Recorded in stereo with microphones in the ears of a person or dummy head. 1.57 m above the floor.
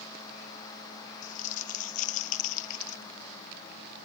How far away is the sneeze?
I don't hear a sneeze.